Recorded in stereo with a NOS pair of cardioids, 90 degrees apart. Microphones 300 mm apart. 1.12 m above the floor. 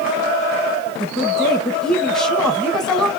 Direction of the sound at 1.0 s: Straight ahead.